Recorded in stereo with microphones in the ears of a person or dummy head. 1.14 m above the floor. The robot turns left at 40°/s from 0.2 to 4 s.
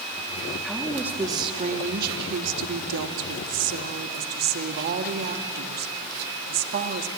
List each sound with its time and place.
0.6 s a woman speaking: 10° left, 1.6 m; by 7.1 s 125° right, 1.6 m